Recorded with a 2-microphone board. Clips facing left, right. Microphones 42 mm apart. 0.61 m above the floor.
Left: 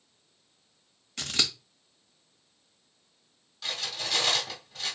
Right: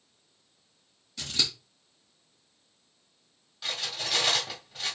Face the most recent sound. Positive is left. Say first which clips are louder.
# right 1 dB
turn(degrees=-10)  # may be behind; listen again after turning